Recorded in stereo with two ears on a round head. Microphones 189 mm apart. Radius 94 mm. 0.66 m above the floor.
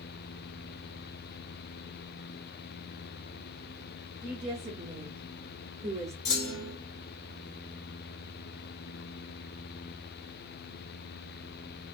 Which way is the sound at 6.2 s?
65° left (ahead or behind).